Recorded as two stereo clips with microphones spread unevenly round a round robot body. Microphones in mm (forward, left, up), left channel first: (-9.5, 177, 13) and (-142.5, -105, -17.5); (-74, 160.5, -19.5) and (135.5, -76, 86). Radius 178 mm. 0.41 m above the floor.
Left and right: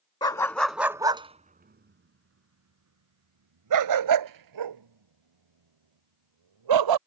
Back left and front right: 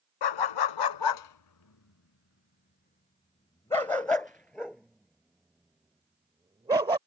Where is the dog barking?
140° left; by 7.0 s 125° right.